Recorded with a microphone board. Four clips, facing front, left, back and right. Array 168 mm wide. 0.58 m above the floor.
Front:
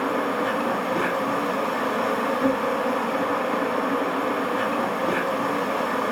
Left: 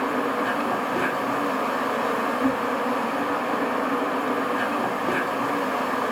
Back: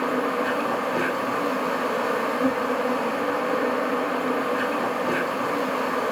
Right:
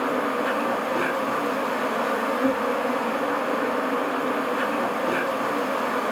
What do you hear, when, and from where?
0.0 s an insect: 25° left, 2.0 m